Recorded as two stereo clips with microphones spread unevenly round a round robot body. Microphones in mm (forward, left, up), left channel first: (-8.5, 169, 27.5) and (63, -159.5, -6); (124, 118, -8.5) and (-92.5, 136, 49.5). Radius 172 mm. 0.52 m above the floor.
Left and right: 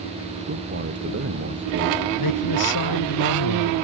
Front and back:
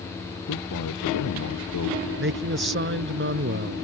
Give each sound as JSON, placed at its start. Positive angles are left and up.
{"t": 0.5, "sound": "a man speaking", "azimuth_deg": -20}
{"t": 2.2, "sound": "a man speaking", "azimuth_deg": 145}